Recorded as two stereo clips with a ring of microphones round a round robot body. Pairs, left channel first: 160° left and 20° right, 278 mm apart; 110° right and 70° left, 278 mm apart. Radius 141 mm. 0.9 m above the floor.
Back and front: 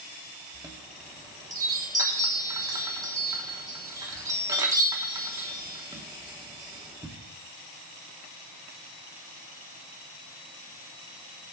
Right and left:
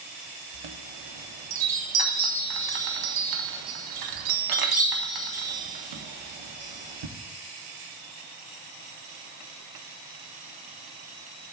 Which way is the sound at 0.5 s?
55° left.